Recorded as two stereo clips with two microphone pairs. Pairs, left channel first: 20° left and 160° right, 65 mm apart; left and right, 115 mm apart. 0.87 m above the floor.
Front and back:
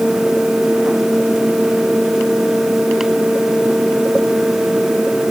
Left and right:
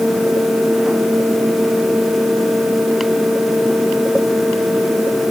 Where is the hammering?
I don't hear hammering.